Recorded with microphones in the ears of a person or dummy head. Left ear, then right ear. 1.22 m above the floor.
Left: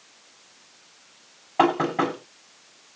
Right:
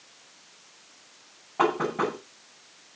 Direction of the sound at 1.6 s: 90° left.